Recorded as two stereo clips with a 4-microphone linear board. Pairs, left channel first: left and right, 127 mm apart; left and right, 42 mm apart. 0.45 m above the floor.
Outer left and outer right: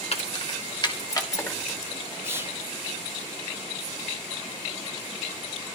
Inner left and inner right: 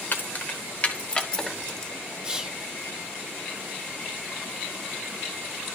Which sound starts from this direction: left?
Keys jangling, at 0.1 s.